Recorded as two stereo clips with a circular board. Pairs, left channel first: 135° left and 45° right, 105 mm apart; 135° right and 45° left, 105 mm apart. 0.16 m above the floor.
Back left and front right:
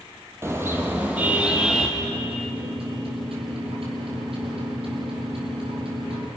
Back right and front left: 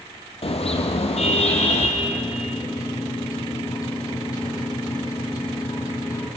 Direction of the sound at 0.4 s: 110° right.